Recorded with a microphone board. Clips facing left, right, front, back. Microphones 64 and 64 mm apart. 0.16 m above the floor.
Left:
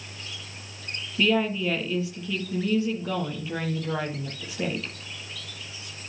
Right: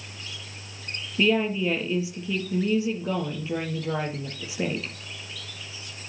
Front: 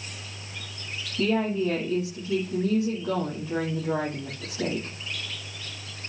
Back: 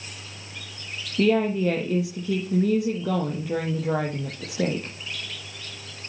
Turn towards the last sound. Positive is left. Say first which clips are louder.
# right 1 dB, back 4 dB
turn(degrees=-165)